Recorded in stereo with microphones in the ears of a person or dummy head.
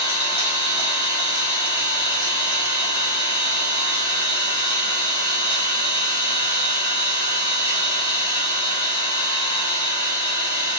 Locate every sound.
0.0 s an engine running: 25° left (ahead or behind), 3 m